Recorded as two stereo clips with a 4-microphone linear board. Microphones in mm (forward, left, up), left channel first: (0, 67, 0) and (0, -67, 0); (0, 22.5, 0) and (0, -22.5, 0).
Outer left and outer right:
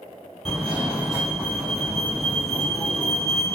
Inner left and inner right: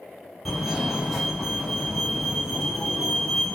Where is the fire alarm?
5° right (ahead or behind), 1.9 m.